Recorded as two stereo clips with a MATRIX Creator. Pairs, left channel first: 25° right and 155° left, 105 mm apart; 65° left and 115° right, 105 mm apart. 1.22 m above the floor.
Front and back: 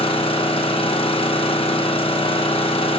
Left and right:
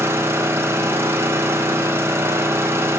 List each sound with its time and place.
0.0 s an engine running: 50° right, 0.8 m